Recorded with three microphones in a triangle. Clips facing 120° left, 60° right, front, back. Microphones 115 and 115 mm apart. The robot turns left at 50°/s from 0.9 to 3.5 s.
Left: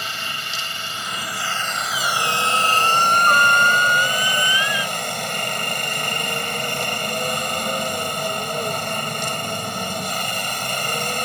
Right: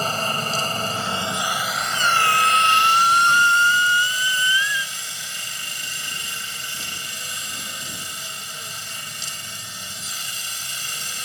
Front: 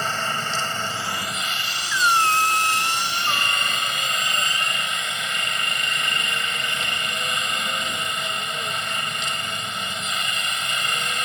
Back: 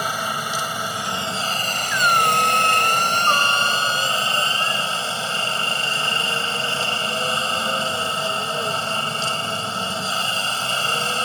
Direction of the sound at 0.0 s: 105° right.